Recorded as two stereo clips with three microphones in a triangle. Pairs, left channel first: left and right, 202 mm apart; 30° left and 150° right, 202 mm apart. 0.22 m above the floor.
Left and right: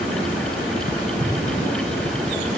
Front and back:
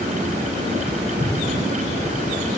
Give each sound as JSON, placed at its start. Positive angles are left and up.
{"t": 1.2, "sound": "an explosion", "azimuth_deg": -20, "distance_m": 5.5}